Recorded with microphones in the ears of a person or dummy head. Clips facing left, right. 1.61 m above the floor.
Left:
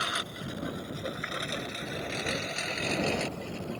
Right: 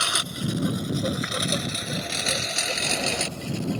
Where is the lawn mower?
65° right (ahead or behind); by 3.8 s 70° right (ahead or behind).